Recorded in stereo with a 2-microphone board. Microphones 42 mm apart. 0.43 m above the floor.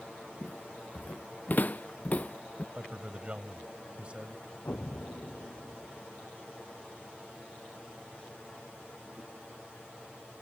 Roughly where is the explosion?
Left.